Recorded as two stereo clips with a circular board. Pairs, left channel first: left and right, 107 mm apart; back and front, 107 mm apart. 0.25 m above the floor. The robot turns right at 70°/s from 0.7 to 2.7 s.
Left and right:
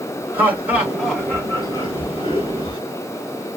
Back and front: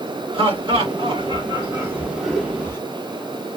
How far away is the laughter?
About 2.5 m.